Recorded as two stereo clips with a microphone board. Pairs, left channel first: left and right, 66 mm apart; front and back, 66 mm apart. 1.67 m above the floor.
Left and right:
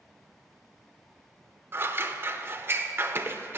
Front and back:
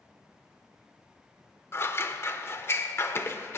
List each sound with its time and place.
1.7 s scissors: 40° right, 0.8 m